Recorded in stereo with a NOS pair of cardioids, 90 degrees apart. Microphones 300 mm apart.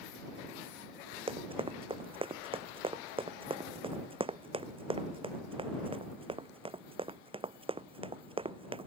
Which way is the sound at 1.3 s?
20° right.